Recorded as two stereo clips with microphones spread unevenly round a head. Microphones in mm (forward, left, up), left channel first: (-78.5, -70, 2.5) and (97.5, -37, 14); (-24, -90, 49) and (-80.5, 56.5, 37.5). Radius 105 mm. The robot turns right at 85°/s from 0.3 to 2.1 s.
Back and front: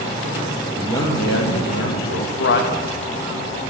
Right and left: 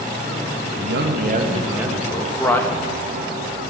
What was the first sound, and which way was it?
A man speaking, 100° left.